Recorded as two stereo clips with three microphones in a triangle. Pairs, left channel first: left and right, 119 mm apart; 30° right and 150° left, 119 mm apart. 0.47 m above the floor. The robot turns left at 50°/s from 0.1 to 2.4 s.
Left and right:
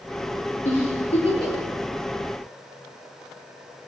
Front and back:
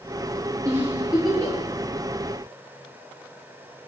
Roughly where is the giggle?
Left.